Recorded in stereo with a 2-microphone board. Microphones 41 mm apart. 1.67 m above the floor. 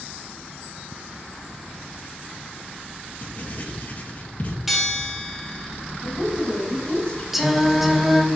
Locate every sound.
3.2 s writing: 45° left (ahead or behind), 1.7 m
4.7 s a bell: 5° right (ahead or behind), 1.6 m
6.0 s a woman speaking: 25° left (ahead or behind), 4 m
7.3 s singing: 5° right (ahead or behind), 1.1 m